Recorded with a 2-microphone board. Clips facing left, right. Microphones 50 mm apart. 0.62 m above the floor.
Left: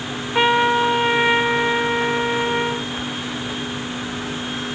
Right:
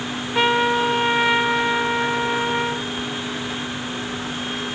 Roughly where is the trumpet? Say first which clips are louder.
Left 2 dB; centre.